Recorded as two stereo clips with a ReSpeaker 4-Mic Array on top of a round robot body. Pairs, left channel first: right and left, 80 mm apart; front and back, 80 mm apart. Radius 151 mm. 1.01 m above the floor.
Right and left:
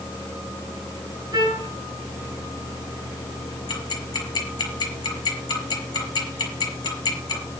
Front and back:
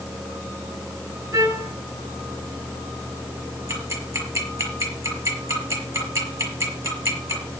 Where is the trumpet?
130° left, 7 m.